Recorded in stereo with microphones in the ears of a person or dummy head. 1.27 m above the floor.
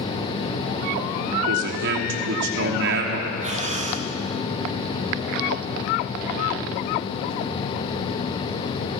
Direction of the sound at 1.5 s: 70° right (ahead or behind).